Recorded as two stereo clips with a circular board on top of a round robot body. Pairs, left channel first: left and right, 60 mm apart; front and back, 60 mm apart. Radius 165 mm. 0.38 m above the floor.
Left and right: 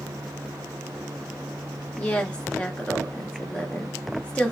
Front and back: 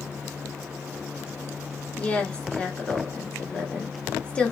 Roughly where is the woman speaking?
Ahead left.